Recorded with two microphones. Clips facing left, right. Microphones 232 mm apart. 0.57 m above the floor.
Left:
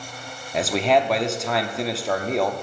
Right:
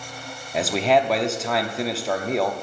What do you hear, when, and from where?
0.5 s a man speaking: centre (ahead or behind), 0.6 m